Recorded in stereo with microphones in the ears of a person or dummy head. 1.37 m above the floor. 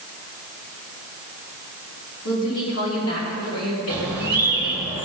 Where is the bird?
20° left (ahead or behind), 2 m.